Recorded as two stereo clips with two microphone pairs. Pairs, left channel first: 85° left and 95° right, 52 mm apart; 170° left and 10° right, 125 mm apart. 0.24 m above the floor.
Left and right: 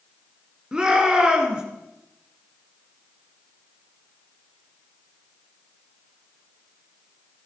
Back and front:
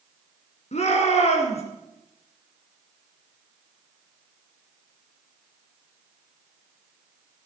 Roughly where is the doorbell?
No doorbell in this recording.